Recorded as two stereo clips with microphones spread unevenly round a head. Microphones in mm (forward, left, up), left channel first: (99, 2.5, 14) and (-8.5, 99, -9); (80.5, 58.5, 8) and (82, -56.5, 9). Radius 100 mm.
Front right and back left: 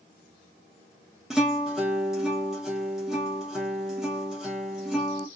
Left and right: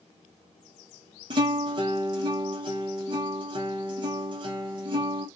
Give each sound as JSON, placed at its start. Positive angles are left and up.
{"t": 1.3, "sound": "a guitar", "azimuth_deg": -125, "distance_m": 0.6}